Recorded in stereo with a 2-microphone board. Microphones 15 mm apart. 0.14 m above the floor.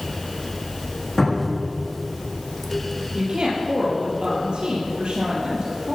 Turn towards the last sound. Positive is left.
turn(degrees=-65)  # may be behind; listen again after turning